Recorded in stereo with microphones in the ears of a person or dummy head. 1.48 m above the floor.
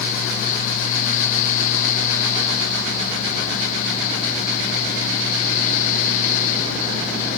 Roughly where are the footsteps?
No footsteps in this recording.